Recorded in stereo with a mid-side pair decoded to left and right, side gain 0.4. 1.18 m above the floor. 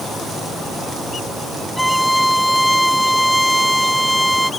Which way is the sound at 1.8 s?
Straight ahead.